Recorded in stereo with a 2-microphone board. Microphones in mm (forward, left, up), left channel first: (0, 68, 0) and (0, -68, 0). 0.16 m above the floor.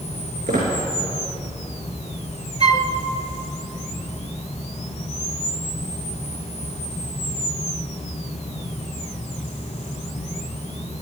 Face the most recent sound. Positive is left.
turn(degrees=-50)  # may be behind; listen again after turning